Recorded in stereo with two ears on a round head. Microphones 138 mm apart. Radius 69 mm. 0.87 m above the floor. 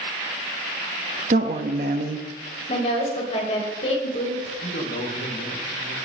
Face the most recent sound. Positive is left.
turn(degrees=75)  # may be behind; listen again after turning